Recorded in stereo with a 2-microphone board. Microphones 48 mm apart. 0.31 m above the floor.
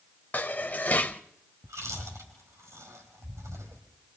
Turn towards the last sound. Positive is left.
turn(degrees=-80)